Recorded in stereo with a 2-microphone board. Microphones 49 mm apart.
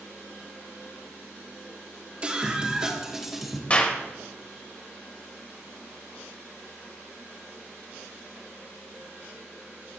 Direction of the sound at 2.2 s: 25° right (ahead or behind).